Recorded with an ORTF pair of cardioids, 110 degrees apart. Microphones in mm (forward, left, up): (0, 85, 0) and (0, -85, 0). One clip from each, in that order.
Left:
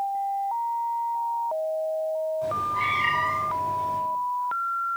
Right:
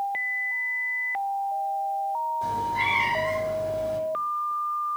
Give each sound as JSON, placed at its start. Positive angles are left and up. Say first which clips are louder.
{"t": 2.4, "sound": "a cat meowing", "louder": "right 1 dB", "azimuth_deg": -55, "distance_m": 2.5}